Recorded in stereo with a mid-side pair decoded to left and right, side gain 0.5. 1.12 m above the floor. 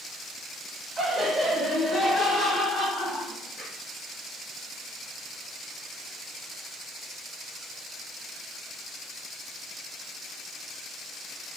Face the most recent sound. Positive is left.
turn(degrees=25)